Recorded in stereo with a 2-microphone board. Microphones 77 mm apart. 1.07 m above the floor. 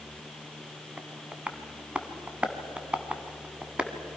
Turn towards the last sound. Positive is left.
turn(degrees=-15)  # may be behind; listen again after turning